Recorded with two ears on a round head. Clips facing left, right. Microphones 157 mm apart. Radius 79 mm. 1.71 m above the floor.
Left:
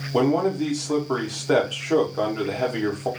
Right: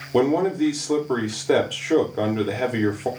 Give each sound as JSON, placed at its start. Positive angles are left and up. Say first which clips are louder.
{"t": 0.1, "sound": "a man speaking", "louder": "right 1 dB", "side_deg": -10, "distance_m": 1.1}